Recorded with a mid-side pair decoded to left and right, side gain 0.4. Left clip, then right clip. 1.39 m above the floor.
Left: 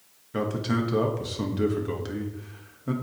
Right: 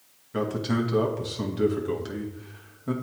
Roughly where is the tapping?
No tapping in this recording.